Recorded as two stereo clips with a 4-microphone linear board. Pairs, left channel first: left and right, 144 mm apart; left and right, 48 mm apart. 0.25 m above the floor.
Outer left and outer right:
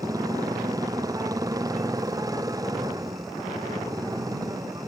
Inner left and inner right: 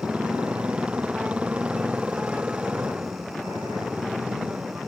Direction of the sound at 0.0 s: 25° right (ahead or behind).